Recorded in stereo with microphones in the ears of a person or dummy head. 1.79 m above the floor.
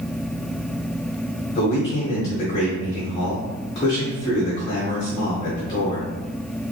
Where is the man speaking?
30° left (ahead or behind), 1.5 m.